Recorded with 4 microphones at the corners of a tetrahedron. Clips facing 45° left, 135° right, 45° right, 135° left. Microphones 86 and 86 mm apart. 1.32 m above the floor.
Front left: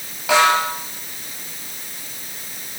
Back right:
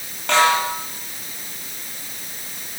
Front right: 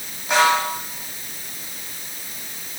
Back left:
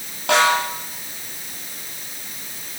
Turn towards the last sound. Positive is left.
turn(degrees=130)